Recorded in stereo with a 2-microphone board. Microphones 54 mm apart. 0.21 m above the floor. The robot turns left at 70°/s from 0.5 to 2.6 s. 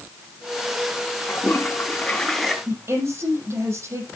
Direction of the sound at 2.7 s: 55° right (ahead or behind).